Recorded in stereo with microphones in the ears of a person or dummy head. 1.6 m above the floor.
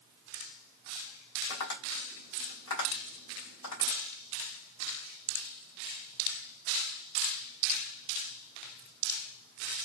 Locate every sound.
1.5 s tapping: 30° left (ahead or behind), 2.5 m